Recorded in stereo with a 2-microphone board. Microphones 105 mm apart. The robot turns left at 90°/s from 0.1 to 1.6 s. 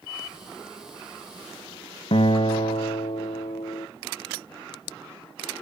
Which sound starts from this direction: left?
A guitar, at 2.1 s.